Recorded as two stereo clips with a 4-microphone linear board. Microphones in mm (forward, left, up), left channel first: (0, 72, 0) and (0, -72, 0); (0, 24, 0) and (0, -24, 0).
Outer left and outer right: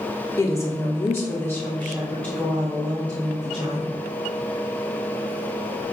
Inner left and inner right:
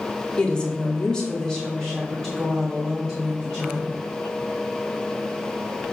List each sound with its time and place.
0.4 s a woman speaking: 20° left (ahead or behind), 0.7 m; by 3.9 s 5° left (ahead or behind), 2 m